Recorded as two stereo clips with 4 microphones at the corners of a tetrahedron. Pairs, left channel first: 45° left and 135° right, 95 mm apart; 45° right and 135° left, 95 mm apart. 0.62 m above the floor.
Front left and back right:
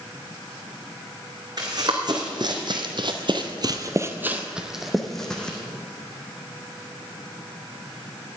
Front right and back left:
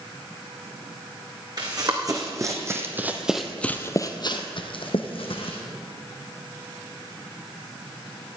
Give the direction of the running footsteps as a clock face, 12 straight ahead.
6 o'clock.